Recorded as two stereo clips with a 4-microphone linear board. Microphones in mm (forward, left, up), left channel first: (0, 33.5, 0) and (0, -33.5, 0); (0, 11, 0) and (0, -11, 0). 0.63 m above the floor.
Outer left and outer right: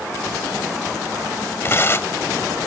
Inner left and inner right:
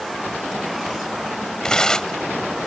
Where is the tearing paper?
35° left (ahead or behind).